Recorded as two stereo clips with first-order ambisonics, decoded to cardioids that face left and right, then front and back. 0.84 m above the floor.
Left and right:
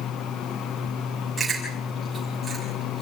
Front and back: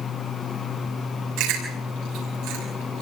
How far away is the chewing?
About 7 m.